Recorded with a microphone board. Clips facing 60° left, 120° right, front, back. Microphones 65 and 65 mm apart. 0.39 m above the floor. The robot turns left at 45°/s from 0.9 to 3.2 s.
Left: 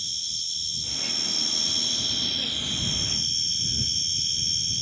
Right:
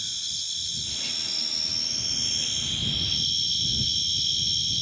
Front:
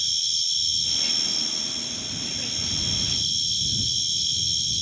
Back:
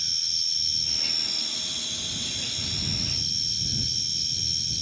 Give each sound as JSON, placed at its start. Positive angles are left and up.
{"t": 0.0, "sound": "an insect", "azimuth_deg": -130}